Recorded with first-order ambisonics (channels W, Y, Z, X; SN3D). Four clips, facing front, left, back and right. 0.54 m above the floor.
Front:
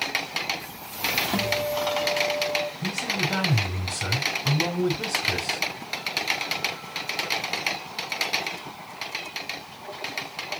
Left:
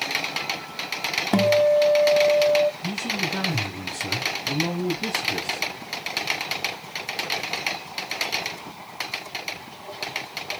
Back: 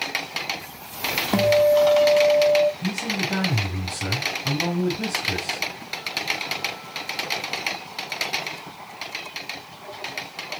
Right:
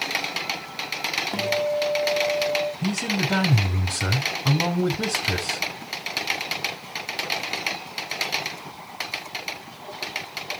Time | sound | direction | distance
1.3 | a guitar | 125° left | 0.8 m
2.8 | a man speaking | 90° right | 5 m